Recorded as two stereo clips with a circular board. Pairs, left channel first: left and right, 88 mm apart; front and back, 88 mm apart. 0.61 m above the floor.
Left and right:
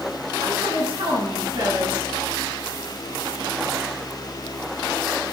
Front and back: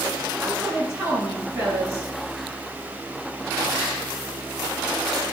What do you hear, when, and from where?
0.4 s a woman speaking: 110° right, 7 m